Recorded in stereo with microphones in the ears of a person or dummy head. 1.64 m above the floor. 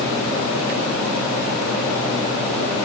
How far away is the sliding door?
No sliding door in this recording.